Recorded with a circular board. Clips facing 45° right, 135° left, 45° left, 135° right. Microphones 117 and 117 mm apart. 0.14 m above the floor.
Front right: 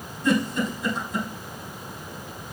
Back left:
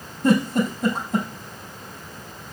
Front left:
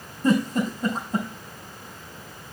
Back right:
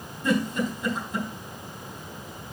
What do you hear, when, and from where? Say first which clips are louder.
0.2 s a giggle: back left 4 dB, front left 3 dB; 95° left, 4 m